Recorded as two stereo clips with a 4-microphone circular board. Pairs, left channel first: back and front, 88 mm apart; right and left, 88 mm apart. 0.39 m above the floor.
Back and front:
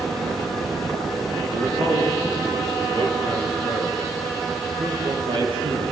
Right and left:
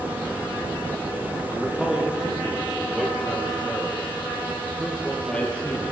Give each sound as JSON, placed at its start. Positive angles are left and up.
{"t": 1.5, "sound": "a man speaking", "azimuth_deg": 10, "distance_m": 8.5}